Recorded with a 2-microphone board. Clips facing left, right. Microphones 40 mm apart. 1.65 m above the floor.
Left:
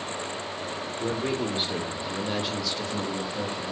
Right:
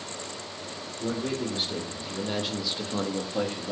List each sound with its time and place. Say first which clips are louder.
1.0 s a man speaking: left 1 dB; 35° left (ahead or behind), 1.3 m; by 3.7 s 65° right (ahead or behind), 0.7 m